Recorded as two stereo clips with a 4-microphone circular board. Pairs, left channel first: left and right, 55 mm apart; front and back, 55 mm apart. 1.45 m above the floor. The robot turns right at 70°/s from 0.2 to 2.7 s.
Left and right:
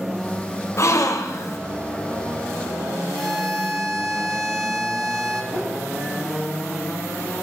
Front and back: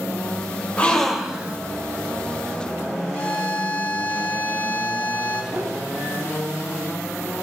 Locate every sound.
0.8 s a gasp: 65° left, 1.0 m; by 1.6 s 120° left, 1.0 m
3.1 s a violin: 5° left, 1.2 m
5.5 s a whoosh: 175° left, 2.5 m